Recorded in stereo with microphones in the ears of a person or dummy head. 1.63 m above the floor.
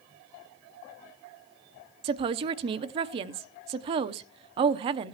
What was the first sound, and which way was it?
A woman speaking, 40° right (ahead or behind).